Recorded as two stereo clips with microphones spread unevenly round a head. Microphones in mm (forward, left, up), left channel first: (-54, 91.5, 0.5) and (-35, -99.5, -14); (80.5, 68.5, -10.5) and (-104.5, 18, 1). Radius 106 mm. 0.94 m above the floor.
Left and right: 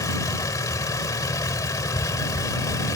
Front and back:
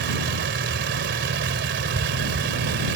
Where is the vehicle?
170° left.